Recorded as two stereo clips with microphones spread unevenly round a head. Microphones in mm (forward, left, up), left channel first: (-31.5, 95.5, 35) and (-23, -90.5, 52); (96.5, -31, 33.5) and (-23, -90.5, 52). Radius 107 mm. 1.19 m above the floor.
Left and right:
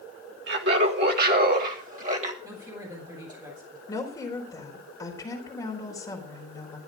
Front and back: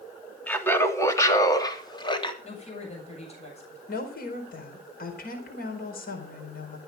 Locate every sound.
0.5 s laughter: 50° right, 3 m; by 2.3 s 25° right, 3 m
2.4 s a woman speaking: 15° right, 7.5 m
3.9 s a woman speaking: 20° left, 4 m